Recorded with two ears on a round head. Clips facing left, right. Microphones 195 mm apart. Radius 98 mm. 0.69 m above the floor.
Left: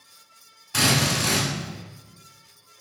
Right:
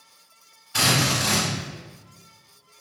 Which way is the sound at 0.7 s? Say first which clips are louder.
Left 1 dB; 65° left (ahead or behind).